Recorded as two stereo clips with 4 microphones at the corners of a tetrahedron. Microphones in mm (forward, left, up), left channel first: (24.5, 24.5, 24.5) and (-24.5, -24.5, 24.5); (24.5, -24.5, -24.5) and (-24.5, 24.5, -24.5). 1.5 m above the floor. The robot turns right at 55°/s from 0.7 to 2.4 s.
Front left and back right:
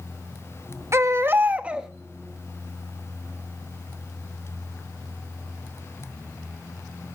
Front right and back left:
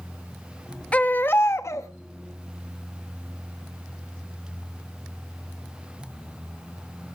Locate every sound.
0.9 s a baby crying: 110° right, 1.1 m; by 1.9 s 55° right, 1.1 m